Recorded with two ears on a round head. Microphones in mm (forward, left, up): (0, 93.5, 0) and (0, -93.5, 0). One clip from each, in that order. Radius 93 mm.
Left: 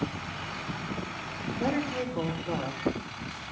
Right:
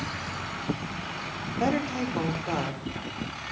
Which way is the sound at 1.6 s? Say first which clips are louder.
Right 3 dB; 50° right (ahead or behind).